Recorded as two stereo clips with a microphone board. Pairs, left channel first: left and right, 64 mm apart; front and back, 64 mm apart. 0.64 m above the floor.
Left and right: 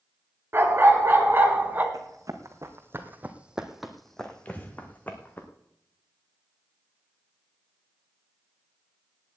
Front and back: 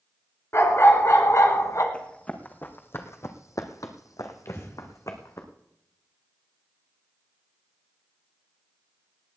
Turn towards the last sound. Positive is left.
turn(degrees=30)